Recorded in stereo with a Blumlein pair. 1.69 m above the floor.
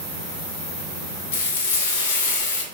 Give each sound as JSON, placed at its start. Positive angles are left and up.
{"t": 1.3, "sound": "frying", "azimuth_deg": 55, "distance_m": 0.6}